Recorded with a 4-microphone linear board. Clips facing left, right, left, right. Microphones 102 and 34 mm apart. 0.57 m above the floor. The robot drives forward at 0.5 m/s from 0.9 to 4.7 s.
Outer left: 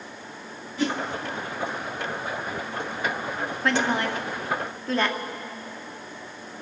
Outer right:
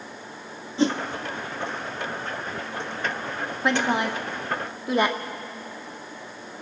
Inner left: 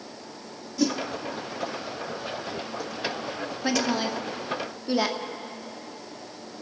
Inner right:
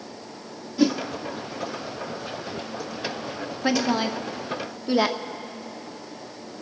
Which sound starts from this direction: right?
A whoosh, at 0.8 s.